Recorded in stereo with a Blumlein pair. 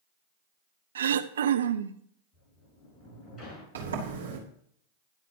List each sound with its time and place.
0.9 s throat clearing: 65° right, 0.8 m
2.3 s a sliding door: 20° left, 7.5 m
3.8 s a sliding door: 70° right, 3 m